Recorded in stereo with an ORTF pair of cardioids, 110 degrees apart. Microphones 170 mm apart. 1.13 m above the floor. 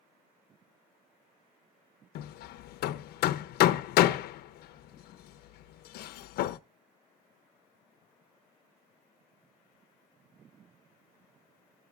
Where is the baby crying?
No baby crying in this recording.